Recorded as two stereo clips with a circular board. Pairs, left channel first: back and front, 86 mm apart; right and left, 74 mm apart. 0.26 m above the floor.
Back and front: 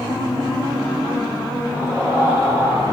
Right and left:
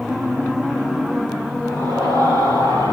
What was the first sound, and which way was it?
A scream, 75° right.